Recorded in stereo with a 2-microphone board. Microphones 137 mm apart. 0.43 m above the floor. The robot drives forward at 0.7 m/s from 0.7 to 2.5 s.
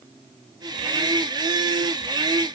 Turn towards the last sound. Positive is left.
No sound to turn to.